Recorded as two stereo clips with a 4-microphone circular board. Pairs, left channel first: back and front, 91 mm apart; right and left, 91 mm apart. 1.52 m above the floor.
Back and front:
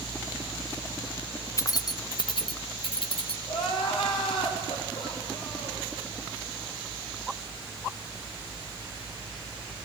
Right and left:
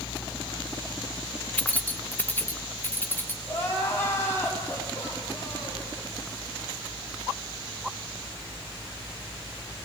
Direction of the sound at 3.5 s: 155° right.